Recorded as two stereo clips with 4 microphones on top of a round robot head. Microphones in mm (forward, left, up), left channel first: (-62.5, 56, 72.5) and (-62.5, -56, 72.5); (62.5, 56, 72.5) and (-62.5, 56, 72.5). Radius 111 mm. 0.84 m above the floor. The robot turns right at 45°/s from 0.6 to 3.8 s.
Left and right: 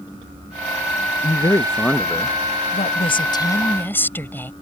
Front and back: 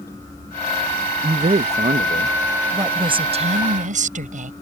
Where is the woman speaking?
115° left; by 4.5 s 160° left.